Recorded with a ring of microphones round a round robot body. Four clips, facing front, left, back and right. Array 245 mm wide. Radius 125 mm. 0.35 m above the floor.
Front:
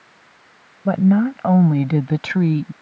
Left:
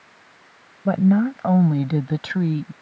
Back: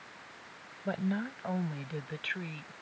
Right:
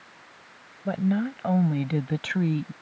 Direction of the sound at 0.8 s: 30° left.